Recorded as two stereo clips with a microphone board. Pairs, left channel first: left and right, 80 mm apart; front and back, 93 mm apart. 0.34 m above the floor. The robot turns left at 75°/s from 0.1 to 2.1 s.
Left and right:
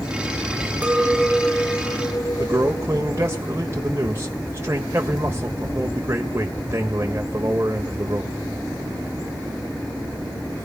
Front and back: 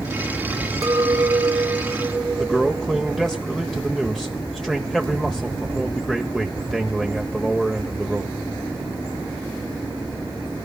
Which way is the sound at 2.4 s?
80° right.